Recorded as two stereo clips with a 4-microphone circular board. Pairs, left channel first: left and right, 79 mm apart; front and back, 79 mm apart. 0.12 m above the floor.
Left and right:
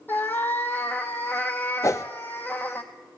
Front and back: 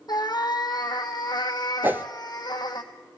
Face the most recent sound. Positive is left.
turn(degrees=120)